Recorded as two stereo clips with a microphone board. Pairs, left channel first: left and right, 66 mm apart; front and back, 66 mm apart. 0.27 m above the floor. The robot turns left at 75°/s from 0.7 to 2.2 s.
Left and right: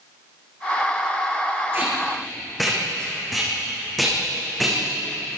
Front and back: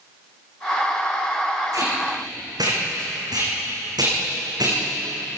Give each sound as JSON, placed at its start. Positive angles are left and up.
{"t": 1.7, "sound": "tape being pulled", "azimuth_deg": -145, "distance_m": 8.5}